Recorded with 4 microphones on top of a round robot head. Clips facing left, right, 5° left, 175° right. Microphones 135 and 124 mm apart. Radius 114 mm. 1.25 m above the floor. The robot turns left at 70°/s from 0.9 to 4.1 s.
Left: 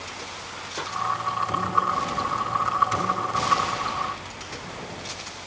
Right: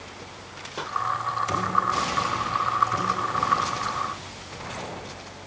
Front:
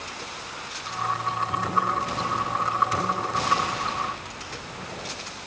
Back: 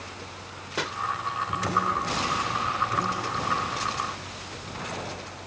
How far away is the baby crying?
I don't hear a baby crying.